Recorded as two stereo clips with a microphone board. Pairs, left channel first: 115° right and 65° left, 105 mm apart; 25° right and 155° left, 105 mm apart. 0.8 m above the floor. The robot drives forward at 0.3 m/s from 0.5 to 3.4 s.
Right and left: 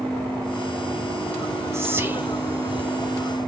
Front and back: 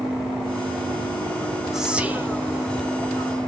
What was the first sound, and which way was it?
Whispering, 75° left.